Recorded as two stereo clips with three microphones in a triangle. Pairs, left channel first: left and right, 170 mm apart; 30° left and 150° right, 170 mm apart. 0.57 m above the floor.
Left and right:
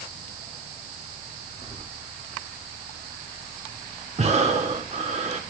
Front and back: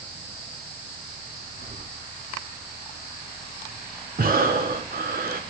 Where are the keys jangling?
155° right, 2.5 m.